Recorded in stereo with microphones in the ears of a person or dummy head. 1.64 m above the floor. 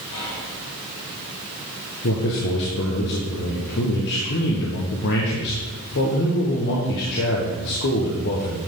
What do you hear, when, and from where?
0.1 s whispering: 80° left, 3.5 m
2.0 s a man speaking: 65° left (ahead or behind), 1.3 m